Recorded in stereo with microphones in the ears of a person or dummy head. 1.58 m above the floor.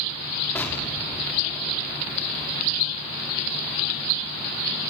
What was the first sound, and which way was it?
An explosion, 15° left (ahead or behind).